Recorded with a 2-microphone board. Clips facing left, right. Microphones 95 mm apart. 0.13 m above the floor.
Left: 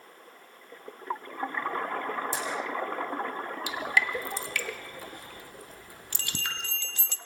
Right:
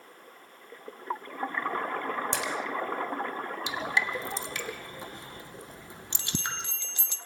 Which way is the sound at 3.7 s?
20° right (ahead or behind).